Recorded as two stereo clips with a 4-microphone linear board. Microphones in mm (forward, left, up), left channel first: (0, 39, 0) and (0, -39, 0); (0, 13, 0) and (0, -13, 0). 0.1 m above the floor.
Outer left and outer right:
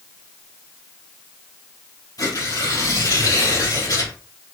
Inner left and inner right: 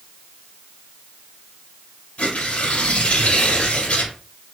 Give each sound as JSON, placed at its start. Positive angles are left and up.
{"t": 2.2, "sound": "tearing paper", "side_deg": 55, "distance_m": 3.0}